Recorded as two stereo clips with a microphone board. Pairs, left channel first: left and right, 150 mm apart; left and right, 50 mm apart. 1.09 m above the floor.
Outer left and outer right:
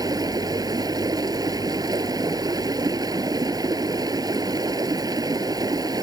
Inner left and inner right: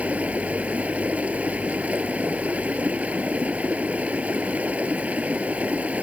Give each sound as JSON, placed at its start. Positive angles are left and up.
{"t": 0.0, "sound": "running water", "side_deg": -25}